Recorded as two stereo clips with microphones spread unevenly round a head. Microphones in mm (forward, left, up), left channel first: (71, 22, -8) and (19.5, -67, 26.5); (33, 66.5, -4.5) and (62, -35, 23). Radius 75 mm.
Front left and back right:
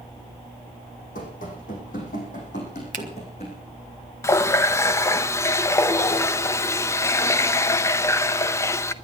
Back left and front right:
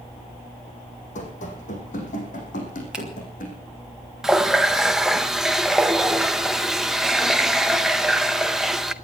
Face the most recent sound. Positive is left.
turn(degrees=-15)